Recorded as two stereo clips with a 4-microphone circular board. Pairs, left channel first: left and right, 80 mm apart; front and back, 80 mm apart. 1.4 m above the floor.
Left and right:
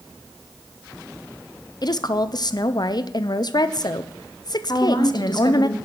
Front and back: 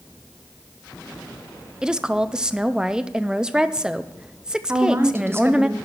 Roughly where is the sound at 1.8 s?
Left.